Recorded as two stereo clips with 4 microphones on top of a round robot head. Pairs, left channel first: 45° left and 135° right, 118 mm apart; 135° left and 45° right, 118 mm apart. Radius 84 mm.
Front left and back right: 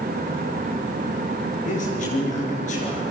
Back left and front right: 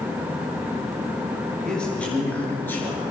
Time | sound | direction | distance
1.6 | a man speaking | 50° left | 7.5 m